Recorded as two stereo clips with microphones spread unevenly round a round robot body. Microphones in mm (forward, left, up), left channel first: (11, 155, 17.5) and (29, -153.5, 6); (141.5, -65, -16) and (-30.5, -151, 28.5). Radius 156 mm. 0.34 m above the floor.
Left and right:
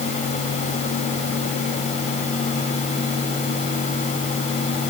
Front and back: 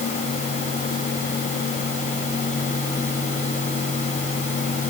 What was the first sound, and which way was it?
Only background noise.